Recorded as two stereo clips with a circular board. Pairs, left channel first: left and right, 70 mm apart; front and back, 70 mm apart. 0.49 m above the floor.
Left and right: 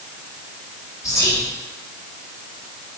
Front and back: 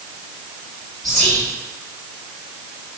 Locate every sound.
1.0 s whispering: 85° left, 2.0 m